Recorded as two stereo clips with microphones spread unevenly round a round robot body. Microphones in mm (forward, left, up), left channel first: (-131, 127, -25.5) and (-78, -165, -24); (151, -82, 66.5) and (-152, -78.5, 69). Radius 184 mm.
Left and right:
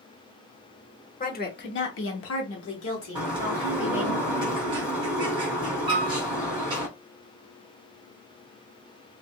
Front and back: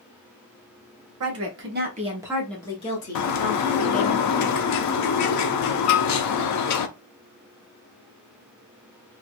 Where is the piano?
40° right, 1.1 m.